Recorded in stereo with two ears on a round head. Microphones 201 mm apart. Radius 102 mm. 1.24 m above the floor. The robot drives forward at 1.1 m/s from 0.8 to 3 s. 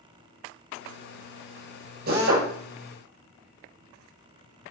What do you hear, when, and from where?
2.1 s a drill: 50° right (ahead or behind), 6 m; by 2.5 s 55° right (ahead or behind), 6 m